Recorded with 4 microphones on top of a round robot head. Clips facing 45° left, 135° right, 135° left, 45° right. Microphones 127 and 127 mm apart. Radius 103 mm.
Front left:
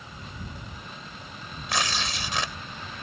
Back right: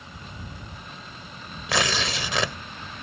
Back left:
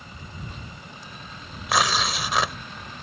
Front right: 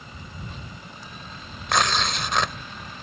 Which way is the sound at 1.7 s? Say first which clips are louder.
Back right 4 dB, even; 140° right.